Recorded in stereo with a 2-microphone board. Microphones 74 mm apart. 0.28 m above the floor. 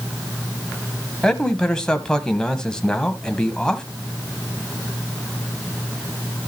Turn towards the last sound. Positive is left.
turn(degrees=10)  # may be behind; listen again after turning